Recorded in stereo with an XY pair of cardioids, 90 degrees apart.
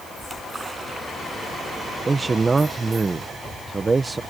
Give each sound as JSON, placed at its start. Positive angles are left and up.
{"t": 0.2, "sound": "a splash", "azimuth_deg": -30}
{"t": 2.1, "sound": "a man speaking", "azimuth_deg": -25}